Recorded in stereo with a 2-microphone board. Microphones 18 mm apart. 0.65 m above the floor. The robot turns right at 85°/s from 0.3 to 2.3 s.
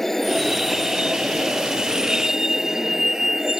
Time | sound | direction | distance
0.0 | a vehicle | 165° left | ?